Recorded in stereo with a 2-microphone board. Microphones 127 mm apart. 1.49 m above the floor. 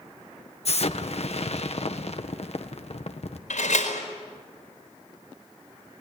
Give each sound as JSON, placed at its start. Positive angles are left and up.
{"t": 0.7, "sound": "an explosion", "side_deg": 55, "distance_m": 1.4}
{"t": 3.5, "sound": "a door slam", "side_deg": 75, "distance_m": 4.5}